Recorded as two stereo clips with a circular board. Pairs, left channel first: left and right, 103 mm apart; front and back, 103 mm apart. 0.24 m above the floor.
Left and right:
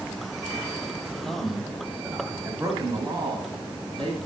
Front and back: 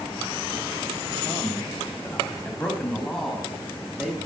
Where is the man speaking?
10° left, 1.3 m; by 4.2 s 100° right, 2 m.